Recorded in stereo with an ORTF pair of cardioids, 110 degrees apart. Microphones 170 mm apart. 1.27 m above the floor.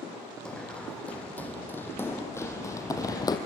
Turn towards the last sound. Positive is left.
turn(degrees=25)